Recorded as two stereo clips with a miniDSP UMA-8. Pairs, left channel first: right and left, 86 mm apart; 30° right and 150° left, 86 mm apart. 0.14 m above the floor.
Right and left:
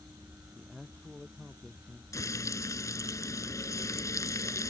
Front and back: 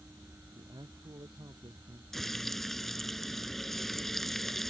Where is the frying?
115° right.